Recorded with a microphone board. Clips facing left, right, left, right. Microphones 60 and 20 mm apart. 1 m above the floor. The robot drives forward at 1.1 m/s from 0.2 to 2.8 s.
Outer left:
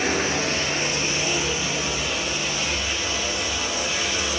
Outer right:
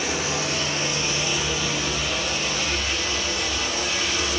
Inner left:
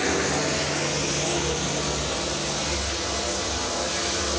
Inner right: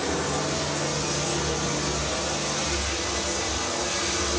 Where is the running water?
40° left (ahead or behind), 1.8 m; by 4.4 s 15° left (ahead or behind), 4 m.